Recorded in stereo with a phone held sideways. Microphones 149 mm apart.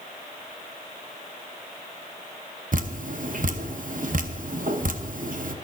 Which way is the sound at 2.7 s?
65° right (ahead or behind).